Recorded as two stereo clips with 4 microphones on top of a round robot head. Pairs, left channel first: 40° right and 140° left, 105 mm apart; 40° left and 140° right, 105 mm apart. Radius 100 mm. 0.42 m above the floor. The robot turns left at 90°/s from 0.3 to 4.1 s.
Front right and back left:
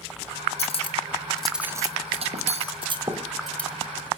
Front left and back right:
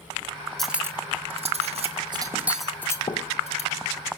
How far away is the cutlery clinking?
About 1.7 m.